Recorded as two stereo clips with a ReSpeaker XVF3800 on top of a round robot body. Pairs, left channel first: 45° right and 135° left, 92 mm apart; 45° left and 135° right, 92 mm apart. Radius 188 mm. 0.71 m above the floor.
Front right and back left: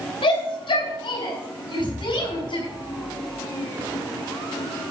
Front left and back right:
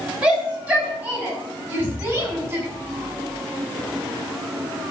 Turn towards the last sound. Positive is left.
turn(degrees=20)